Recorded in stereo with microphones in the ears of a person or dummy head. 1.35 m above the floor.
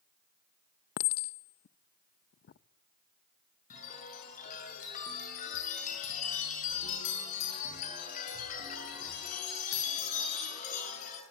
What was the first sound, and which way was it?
A clink, 50° left (ahead or behind).